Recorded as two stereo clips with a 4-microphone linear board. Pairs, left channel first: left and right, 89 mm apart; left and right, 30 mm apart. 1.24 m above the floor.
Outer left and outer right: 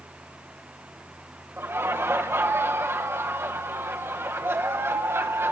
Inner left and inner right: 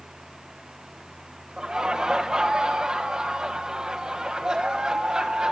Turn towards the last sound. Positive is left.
turn(degrees=-30)  # may be behind; listen again after turning